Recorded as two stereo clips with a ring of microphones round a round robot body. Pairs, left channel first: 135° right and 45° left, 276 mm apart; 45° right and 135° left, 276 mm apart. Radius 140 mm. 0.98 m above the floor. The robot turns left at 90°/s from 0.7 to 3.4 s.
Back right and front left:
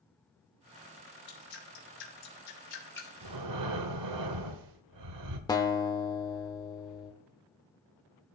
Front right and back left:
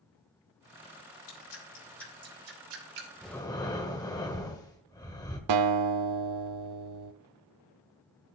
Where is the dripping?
65° right, 4 m; by 3.1 s 135° left, 4 m.